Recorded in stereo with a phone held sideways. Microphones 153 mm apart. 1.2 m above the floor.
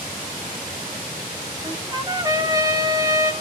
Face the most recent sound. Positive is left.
turn(degrees=-25)  # may be behind; listen again after turning